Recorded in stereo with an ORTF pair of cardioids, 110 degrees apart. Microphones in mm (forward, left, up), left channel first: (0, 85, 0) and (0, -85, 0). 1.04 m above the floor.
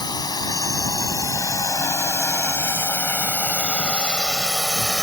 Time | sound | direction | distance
0.0 | a drone | 25° left | ?